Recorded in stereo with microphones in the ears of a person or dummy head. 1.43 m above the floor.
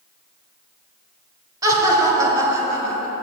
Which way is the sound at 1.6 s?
20° right (ahead or behind).